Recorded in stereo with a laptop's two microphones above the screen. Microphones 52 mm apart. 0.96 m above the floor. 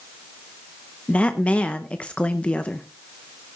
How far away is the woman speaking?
About 0.7 m.